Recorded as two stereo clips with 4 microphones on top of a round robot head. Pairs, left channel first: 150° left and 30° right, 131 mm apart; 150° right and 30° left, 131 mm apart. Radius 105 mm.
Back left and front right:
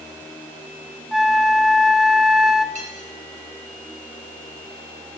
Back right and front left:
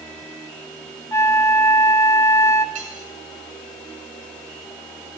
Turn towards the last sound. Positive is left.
turn(degrees=0)